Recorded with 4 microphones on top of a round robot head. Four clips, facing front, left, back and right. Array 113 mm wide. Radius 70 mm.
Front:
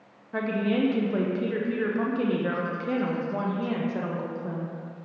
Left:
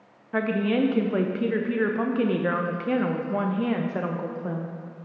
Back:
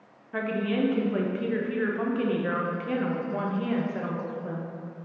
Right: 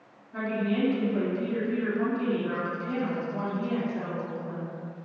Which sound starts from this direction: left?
A woman speaking, at 0.3 s.